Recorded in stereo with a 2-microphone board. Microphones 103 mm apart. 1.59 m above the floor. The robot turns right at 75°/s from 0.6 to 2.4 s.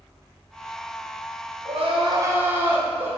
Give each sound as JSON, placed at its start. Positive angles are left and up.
{"t": 1.6, "sound": "crying", "azimuth_deg": -80, "distance_m": 1.2}